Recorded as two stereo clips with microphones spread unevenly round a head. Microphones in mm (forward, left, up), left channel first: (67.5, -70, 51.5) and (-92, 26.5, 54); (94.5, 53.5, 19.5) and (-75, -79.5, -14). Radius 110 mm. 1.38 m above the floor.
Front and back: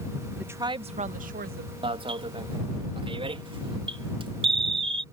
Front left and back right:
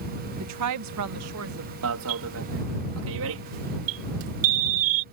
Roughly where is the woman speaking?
Behind right.